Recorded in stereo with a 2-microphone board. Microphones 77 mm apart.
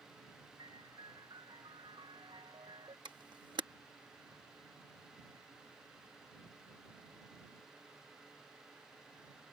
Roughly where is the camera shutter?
Right.